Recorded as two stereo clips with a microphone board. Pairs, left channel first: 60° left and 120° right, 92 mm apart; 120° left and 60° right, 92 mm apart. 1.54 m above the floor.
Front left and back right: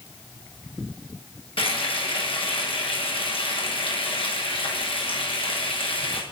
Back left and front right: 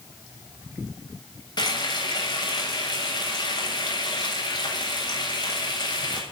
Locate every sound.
1.6 s frying: 80° left, 8 m